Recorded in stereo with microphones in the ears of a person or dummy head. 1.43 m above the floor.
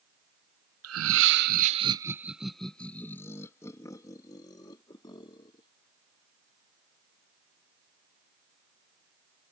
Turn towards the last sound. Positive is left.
turn(degrees=30)  # may be behind; listen again after turning